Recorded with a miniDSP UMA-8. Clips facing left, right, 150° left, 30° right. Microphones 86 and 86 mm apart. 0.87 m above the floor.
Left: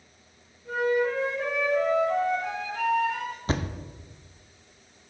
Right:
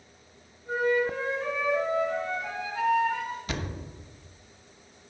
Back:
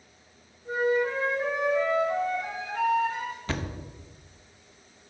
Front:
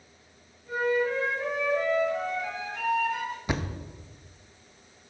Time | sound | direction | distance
0.7 | a flute | 100° left | 2.5 m
3.5 | a thud | 40° left | 0.5 m